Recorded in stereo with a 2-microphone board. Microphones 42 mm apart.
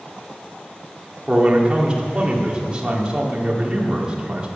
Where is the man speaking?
25° right (ahead or behind), 2.5 m.